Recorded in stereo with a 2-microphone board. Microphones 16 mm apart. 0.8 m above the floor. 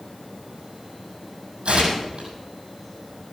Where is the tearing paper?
80° right, 6.5 m.